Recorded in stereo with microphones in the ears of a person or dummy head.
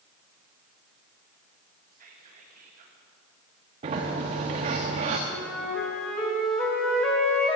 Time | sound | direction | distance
1.9 | whispering | 50° right (ahead or behind) | 2.0 m
3.8 | a sliding door | 30° right (ahead or behind) | 1.1 m
5.3 | a flute | centre (ahead or behind) | 2 m